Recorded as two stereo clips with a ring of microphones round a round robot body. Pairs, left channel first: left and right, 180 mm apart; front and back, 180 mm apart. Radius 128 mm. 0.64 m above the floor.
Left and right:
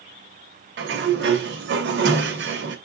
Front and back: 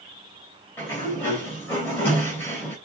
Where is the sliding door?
80° right, 3 m.